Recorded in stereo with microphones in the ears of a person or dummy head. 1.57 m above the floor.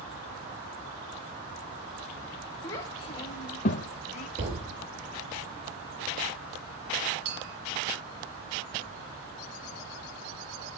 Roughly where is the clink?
Right.